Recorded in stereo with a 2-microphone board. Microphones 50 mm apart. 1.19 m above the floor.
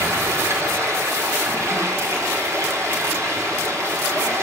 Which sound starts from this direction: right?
Running water, at 0.0 s.